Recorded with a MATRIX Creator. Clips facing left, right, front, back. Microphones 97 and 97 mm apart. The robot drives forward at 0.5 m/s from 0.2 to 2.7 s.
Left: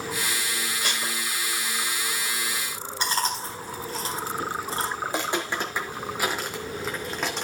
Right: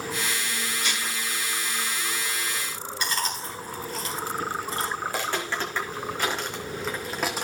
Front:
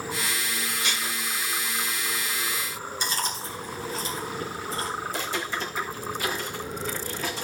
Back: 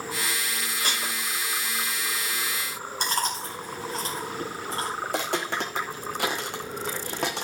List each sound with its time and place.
0.8 s dishes clattering: 130° left, 2 m; by 1.2 s 135° left, 2.5 m
3.0 s chewing: 145° left, 4 m
5.0 s footsteps: 155° left, 2.5 m; by 7.5 s 175° right, 2 m